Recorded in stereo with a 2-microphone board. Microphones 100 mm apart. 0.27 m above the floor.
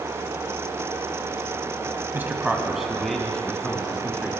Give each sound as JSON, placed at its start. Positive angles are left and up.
{"t": 2.1, "sound": "a man speaking", "side_deg": -20, "distance_m": 1.5}